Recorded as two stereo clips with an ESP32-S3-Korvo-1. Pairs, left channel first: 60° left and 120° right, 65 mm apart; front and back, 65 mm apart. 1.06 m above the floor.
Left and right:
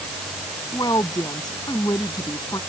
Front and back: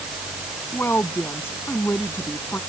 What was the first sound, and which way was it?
A woman speaking, 55° left.